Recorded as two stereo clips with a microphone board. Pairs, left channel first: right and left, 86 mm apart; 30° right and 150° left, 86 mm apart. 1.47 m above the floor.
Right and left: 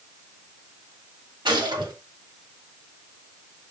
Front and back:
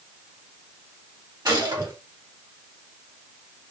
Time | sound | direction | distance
1.4 | a gunshot | 115° left | 3.5 m